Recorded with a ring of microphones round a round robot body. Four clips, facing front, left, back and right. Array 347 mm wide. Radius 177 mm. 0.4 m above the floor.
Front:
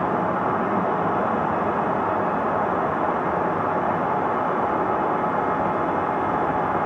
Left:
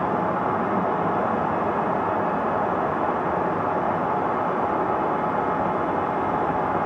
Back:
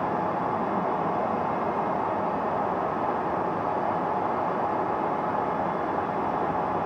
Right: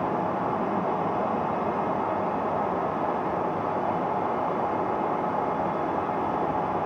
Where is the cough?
No cough in this recording.